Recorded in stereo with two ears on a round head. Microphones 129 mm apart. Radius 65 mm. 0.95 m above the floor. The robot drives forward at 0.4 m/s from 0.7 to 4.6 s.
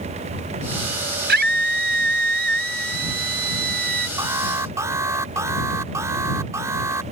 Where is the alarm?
20° right (ahead or behind).